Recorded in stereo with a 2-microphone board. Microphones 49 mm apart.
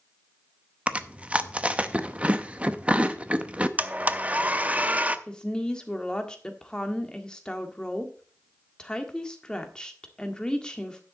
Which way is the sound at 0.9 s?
20° right (ahead or behind).